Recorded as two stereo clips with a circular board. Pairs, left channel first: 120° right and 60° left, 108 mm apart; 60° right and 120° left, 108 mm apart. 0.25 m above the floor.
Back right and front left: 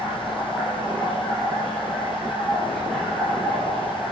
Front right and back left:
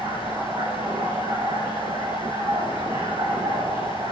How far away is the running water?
About 9 m.